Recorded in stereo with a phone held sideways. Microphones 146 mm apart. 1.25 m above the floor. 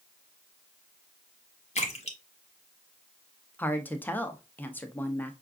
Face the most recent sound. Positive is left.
turn(degrees=10)  # may be behind; listen again after turning